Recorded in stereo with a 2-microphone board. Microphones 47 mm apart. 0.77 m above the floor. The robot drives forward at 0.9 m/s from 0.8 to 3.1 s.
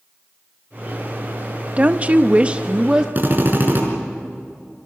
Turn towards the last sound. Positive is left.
turn(degrees=-40)  # may be behind; listen again after turning